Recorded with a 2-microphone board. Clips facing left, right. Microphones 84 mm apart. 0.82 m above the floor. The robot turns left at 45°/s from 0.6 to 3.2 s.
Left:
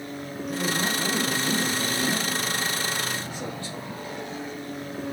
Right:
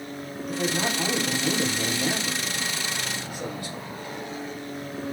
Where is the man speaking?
45° right, 2.5 m; by 4.1 s 160° right, 2.5 m.